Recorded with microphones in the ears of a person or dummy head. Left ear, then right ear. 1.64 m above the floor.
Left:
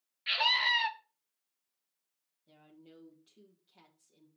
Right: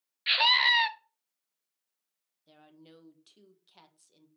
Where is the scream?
30° right (ahead or behind), 0.9 m.